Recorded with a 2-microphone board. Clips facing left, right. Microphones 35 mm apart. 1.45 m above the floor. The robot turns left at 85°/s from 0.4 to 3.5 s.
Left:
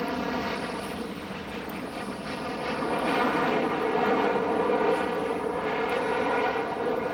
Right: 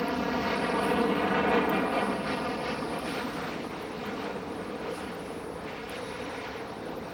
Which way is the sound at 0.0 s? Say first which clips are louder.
Even; straight ahead.